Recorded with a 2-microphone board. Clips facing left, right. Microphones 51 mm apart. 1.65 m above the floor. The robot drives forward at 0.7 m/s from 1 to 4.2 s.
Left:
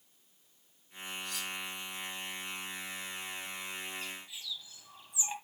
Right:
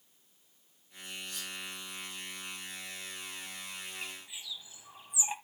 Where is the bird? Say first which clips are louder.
Left 1 dB; 15° right (ahead or behind), 1.6 m.